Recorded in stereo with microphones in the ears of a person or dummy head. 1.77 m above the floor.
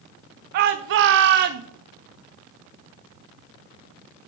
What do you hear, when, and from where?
0.5 s a shout: 50° right (ahead or behind), 1.0 m